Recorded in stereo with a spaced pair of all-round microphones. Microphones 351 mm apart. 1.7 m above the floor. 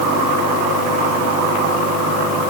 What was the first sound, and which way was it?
Only background noise.